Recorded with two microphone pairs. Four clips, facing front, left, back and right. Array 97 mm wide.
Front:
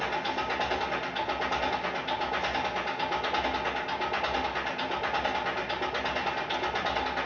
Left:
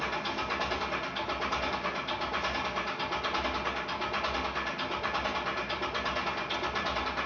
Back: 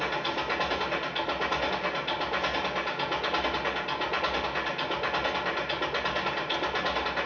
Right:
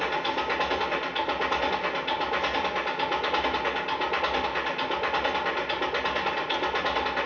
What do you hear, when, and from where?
0.0 s an engine running: 105° right, 1.4 m